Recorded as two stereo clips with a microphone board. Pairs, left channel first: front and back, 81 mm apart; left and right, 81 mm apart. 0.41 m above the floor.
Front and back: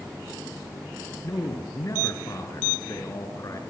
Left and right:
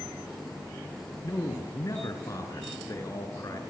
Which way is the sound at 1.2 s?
45° left.